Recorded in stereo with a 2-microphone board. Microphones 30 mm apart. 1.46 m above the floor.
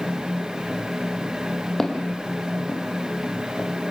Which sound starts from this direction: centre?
Footsteps, at 1.8 s.